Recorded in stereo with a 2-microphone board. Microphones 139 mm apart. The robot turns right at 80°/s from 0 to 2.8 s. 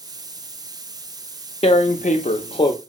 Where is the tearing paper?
55° left, 0.5 m; by 2.7 s 145° left, 0.5 m.